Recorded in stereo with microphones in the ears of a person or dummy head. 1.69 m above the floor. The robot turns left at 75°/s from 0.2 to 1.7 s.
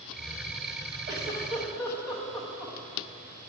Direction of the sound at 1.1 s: 20° right (ahead or behind).